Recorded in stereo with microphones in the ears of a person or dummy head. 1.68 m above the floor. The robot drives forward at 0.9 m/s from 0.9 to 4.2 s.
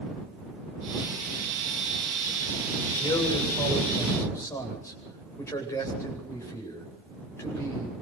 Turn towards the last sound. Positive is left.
turn(degrees=15)  # may be behind; listen again after turning